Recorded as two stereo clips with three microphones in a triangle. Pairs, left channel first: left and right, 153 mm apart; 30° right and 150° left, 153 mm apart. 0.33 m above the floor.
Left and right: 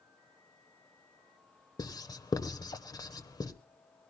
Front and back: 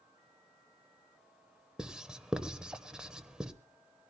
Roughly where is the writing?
Left.